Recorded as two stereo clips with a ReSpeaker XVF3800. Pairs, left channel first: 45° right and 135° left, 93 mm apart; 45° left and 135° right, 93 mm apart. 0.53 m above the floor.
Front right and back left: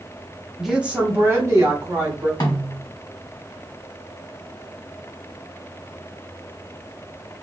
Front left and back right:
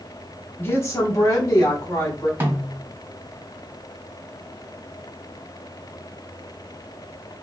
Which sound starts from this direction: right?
A snare drum, at 2.4 s.